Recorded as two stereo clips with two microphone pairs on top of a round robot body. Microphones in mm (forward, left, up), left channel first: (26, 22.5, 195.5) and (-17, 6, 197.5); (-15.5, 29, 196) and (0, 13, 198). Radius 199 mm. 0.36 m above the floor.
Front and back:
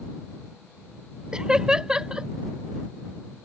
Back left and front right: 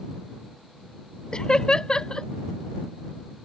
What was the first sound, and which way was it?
Laughter, 130° left.